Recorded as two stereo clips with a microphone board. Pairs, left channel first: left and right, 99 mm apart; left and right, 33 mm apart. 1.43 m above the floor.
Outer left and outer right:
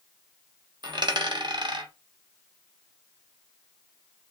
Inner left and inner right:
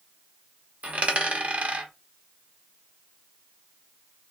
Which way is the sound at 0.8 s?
50° right (ahead or behind).